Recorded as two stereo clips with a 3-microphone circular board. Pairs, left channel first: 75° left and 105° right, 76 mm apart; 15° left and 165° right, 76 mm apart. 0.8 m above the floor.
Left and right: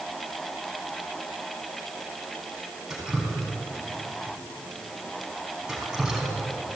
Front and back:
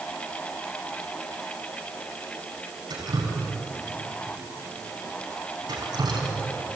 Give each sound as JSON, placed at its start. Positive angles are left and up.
{"t": 2.9, "sound": "dripping", "azimuth_deg": 175, "distance_m": 5.0}